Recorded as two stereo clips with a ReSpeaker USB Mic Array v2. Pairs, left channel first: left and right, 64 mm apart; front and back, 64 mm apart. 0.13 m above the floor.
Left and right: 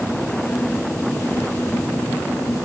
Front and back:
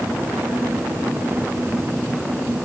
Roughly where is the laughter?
I don't hear laughter.